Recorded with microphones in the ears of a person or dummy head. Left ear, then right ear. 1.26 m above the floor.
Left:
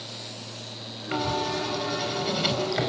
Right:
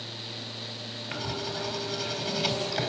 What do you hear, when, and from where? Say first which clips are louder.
1.1 s writing: left 7 dB; 5° right (ahead or behind), 4 m